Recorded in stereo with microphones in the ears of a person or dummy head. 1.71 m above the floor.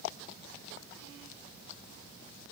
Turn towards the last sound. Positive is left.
No sound to turn to.